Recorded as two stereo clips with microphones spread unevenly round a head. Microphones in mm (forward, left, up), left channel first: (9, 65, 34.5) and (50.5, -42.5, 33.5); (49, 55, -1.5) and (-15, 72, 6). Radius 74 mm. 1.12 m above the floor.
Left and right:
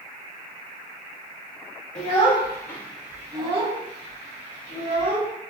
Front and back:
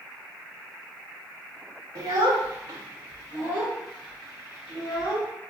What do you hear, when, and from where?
1.9 s a child speaking: 155° left, 1.2 m; by 5.3 s 75° right, 2.0 m